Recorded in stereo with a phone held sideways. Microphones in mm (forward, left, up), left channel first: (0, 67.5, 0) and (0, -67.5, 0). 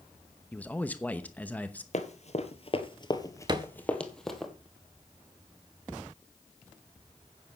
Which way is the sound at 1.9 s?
55° left (ahead or behind).